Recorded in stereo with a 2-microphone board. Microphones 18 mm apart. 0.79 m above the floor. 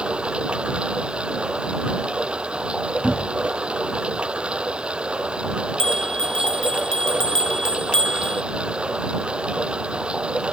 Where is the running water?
85° right.